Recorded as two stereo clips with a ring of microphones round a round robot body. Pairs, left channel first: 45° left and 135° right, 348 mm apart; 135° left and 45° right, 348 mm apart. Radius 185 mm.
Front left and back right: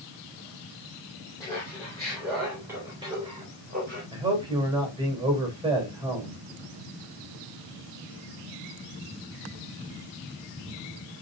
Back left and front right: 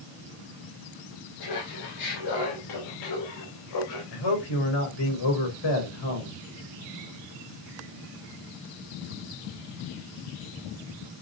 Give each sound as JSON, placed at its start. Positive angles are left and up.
{"t": 1.4, "sound": "laughter", "azimuth_deg": 125, "distance_m": 4.0}
{"t": 4.1, "sound": "a man speaking", "azimuth_deg": 150, "distance_m": 4.0}